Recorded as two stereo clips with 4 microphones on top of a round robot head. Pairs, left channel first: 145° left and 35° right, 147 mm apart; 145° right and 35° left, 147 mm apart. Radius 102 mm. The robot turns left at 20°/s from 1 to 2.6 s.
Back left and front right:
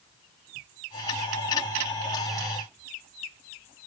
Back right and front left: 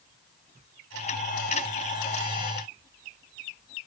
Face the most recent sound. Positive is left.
No sound to turn to.